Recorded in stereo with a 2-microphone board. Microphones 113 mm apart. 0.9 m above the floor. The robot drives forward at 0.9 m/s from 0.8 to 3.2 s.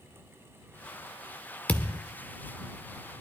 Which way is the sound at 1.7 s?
15° left (ahead or behind).